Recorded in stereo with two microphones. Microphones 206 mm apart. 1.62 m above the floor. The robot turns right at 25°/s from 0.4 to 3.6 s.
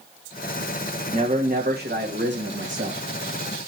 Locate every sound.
1.1 s a man speaking: 145° right, 2.0 m; by 3.0 s 100° right, 2.0 m